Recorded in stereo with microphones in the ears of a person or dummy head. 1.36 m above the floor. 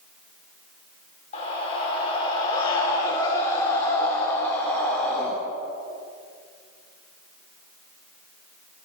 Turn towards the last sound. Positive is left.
turn(degrees=10)  # may be behind; listen again after turning